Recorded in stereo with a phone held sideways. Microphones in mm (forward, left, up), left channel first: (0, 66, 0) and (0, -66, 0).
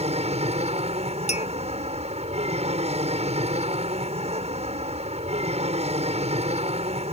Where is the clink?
65° left (ahead or behind).